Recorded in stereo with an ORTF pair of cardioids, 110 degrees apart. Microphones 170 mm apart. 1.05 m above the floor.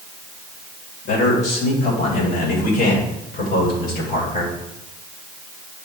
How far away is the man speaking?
About 5 m.